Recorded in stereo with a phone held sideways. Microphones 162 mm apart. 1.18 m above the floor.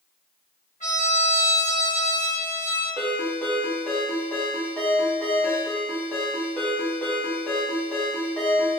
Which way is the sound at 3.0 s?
10° left (ahead or behind).